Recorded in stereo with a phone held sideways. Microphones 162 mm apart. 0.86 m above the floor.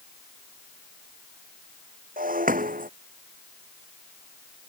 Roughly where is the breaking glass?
Right.